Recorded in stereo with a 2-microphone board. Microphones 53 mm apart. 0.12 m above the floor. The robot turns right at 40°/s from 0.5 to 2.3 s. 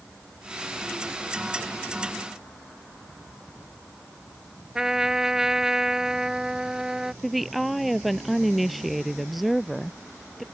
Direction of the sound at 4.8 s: 10° right (ahead or behind).